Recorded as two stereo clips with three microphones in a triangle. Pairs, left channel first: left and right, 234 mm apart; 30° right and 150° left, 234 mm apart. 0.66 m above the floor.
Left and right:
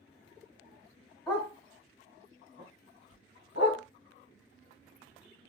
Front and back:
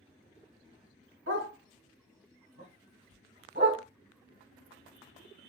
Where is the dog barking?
160° left, 1.6 m; by 3.8 s 115° left, 1.9 m.